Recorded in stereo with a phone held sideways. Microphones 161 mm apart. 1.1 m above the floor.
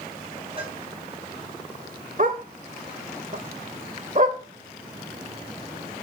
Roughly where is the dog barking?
Right.